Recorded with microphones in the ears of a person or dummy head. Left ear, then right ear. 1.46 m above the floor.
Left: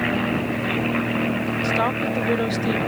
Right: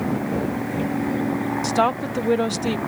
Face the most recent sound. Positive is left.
turn(degrees=-15)  # may be behind; listen again after turning